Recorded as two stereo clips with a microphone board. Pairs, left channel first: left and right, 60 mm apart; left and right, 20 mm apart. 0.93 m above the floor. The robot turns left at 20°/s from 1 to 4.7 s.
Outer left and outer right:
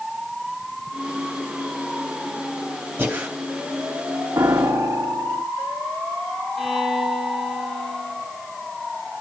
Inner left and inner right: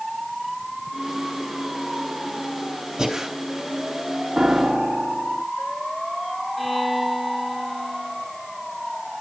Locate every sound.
3.0 s breathing: 30° right (ahead or behind), 3 m; by 3.3 s 25° right (ahead or behind), 3 m
4.4 s a piano: 55° right (ahead or behind), 1.0 m; by 5.5 s 60° right (ahead or behind), 1.0 m
6.6 s a violin: centre (ahead or behind), 2 m